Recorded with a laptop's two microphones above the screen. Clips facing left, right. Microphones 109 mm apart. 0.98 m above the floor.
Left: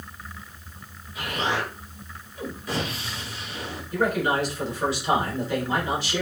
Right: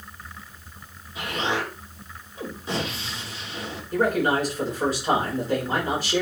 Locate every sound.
1.1 s an explosion: 25° right (ahead or behind), 3.5 m
3.9 s a man speaking: 40° right (ahead or behind), 4.5 m